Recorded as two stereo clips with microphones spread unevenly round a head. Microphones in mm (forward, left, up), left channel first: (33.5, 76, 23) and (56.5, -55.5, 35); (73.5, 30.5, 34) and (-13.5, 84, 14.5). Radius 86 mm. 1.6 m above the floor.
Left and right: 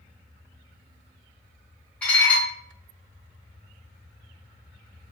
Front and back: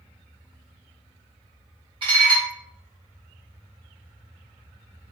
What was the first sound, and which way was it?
Dishes clattering, 175° right.